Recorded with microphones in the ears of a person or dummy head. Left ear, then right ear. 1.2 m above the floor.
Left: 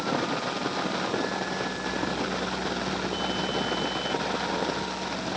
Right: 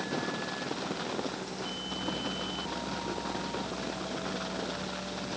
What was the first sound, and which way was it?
Only background noise.